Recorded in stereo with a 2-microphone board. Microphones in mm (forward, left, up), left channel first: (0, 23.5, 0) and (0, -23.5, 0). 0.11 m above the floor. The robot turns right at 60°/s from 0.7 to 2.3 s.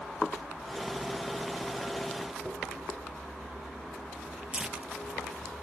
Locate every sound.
2.5 s a dropped coin: 25° right (ahead or behind), 4 m
4.5 s tearing paper: 25° right (ahead or behind), 0.5 m